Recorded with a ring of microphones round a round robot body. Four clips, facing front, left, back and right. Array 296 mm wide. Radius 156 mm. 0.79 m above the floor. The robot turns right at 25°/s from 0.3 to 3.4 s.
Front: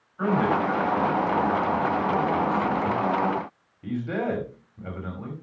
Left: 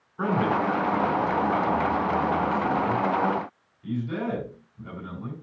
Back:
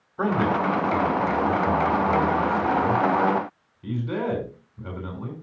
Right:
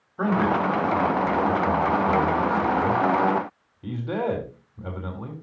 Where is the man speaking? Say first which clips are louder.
Right 2 dB, even; 150° right, 3 m; by 5.3 s 70° right, 3 m.